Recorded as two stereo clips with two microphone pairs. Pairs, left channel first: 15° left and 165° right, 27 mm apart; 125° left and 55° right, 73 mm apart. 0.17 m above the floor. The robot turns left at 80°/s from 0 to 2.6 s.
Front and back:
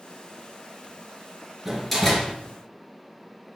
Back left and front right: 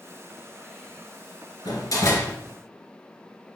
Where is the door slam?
120° left, 1.8 m; by 2.3 s 65° left, 1.8 m.